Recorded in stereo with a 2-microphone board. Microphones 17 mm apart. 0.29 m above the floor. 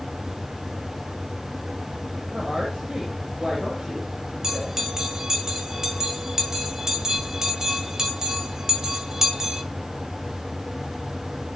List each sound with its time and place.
2.3 s a woman speaking: 60° right (ahead or behind), 9 m
4.4 s a bell: 35° right (ahead or behind), 1.9 m